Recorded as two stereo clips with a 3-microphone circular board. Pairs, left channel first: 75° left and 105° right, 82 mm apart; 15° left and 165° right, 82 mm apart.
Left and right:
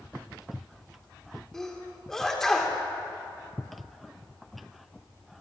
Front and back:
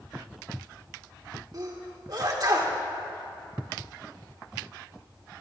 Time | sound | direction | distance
1.5 | a sneeze | 160° left | 1.9 m